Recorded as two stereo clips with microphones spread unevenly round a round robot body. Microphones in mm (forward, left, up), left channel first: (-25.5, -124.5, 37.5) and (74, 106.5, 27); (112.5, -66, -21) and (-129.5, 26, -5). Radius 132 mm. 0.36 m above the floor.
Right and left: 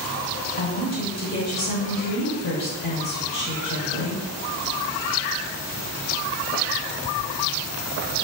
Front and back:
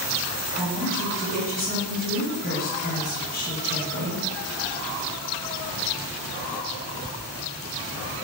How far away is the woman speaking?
About 1.7 m.